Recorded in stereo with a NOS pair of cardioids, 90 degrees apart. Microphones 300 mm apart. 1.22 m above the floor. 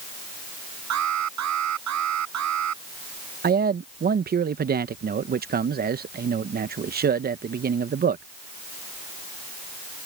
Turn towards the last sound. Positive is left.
turn(degrees=-30)